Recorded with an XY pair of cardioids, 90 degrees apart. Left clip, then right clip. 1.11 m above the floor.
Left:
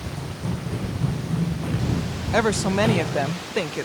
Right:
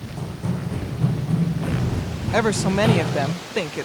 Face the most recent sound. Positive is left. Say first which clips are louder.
# right 1 dB
turn(degrees=-5)